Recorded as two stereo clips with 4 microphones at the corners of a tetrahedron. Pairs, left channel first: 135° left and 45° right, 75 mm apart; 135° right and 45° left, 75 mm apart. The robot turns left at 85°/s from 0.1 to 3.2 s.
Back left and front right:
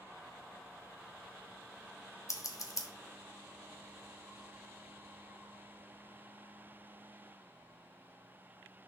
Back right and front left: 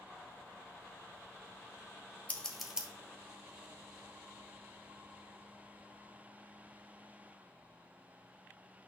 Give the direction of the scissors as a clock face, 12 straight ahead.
7 o'clock.